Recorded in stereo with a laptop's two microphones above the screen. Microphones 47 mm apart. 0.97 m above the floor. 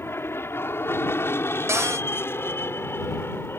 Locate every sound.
0.0 s an aircraft: 60° left (ahead or behind)
1.7 s a cupboard door: 75° right (ahead or behind)